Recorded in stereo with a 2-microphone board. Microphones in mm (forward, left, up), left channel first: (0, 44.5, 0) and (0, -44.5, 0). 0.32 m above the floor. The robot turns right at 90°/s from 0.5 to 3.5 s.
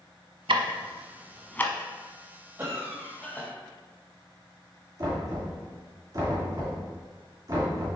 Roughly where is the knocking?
Right.